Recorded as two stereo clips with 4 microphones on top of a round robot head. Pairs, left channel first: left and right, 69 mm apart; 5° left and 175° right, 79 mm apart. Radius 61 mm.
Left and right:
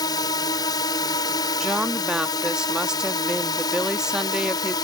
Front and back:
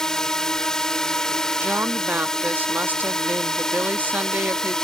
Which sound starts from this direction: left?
A drone, at 0.0 s.